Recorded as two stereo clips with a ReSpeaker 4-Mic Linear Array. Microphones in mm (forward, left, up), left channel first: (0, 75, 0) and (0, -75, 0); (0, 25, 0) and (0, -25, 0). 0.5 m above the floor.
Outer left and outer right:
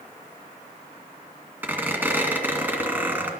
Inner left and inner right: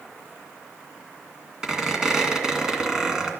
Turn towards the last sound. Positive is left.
turn(degrees=-15)  # may be behind; listen again after turning